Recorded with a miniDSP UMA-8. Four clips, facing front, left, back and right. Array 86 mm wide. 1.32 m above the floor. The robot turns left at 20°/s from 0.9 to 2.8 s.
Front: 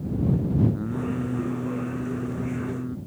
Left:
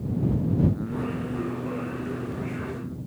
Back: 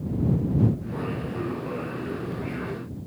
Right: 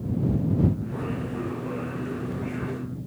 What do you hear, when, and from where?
0.7 s singing: 25° left; by 3.0 s 10° right